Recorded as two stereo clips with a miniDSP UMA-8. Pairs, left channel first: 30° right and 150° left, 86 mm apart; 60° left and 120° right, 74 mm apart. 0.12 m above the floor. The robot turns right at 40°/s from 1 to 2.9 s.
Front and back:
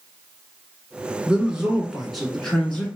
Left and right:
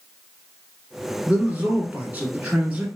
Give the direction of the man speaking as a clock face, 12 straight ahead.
5 o'clock.